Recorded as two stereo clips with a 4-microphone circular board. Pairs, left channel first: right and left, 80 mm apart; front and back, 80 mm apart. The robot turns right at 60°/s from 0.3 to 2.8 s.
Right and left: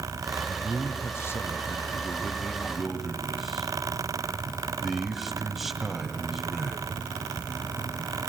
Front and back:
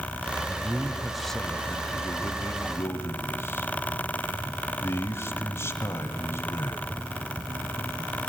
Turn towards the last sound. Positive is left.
turn(degrees=5)